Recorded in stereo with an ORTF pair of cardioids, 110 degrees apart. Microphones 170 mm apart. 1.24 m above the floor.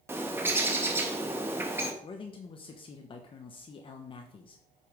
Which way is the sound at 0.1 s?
15° right.